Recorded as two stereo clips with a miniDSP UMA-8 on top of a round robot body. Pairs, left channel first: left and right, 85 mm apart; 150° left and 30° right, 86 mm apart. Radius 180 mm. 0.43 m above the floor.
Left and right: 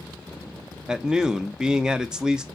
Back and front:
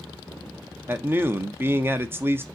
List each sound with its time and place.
0.9 s a man speaking: 15° right, 0.7 m